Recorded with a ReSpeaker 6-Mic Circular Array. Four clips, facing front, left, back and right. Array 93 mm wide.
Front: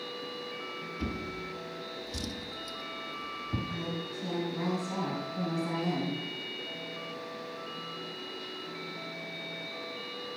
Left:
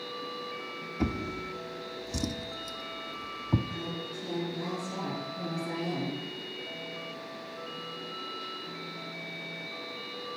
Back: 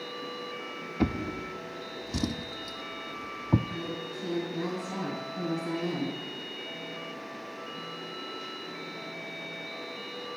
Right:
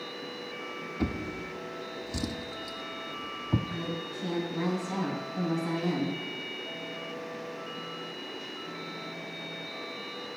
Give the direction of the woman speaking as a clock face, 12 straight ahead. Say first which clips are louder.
Right 2 dB, back 1 dB; 2 o'clock.